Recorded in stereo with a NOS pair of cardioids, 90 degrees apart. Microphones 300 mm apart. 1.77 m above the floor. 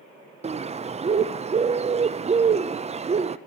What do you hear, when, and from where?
0.4 s a bird: 20° right, 0.7 m